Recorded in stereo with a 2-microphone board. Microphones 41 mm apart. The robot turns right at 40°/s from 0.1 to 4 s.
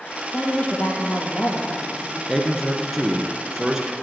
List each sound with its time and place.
0.3 s a woman speaking: 35° left, 3 m; by 2.2 s 110° left, 3 m
2.3 s a man speaking: 5° left (ahead or behind), 1.2 m; by 3.9 s 15° right (ahead or behind), 1.2 m